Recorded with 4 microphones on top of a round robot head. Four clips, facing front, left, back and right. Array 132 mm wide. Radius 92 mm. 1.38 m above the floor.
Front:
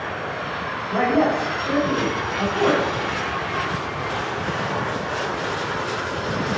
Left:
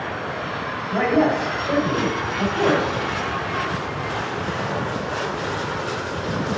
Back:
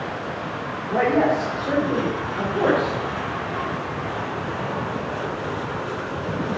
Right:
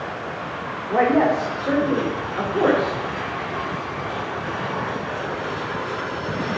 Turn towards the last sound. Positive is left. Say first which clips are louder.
# right 1 dB, even
turn(degrees=-110)